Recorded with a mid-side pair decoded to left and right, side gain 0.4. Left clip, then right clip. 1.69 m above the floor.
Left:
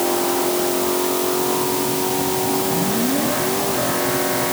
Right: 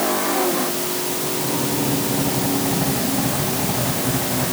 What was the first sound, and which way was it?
Only background noise.